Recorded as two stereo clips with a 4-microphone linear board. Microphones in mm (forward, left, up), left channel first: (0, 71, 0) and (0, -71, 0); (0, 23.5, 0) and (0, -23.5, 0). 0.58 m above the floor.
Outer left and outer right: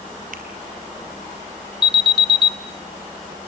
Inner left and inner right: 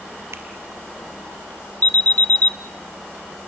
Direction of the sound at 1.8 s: 35° left (ahead or behind).